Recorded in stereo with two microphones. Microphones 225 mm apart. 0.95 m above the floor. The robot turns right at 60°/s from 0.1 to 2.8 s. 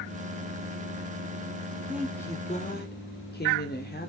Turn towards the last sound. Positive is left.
turn(degrees=45)